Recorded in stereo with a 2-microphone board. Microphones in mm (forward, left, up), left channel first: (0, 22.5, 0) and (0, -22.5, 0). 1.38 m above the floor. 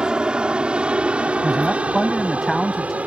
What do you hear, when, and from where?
0.0 s an aircraft: 20° right (ahead or behind); by 3.1 s 30° right (ahead or behind)
1.4 s a man speaking: centre (ahead or behind)